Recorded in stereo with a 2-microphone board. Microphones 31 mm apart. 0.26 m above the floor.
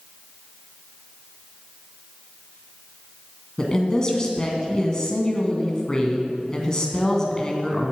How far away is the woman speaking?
About 2 m.